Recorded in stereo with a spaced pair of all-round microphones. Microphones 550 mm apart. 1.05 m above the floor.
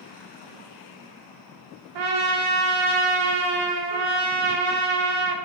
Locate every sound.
1.9 s a trumpet: 85° right, 0.5 m